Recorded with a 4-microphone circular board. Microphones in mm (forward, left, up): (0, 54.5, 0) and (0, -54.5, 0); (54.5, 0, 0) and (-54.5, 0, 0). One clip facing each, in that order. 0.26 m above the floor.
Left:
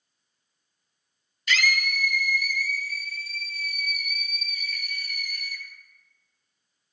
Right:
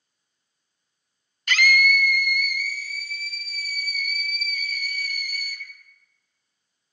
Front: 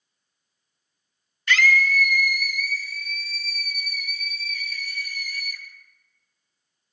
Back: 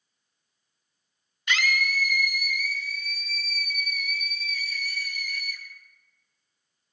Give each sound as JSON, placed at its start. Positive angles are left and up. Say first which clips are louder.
{"t": 1.5, "sound": "a scream", "louder": "right 5 dB, front 6 dB", "azimuth_deg": -110, "distance_m": 1.6}